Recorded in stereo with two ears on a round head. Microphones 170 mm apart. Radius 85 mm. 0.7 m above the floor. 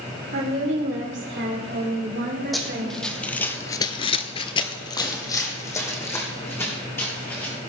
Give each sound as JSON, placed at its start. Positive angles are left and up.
{"t": 0.3, "sound": "a woman speaking", "side_deg": -65, "distance_m": 2.5}
{"t": 2.5, "sound": "running footsteps", "side_deg": 0, "distance_m": 2.0}